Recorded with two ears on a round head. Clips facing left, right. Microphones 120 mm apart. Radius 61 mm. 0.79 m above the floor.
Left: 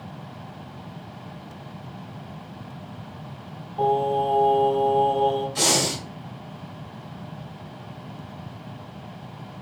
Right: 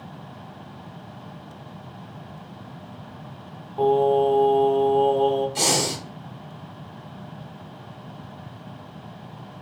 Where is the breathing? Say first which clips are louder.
Even; 25° right (ahead or behind), 1.5 m.